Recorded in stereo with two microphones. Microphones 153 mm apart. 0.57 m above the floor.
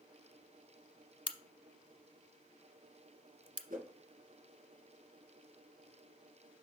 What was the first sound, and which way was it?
A crack, 35° left (ahead or behind).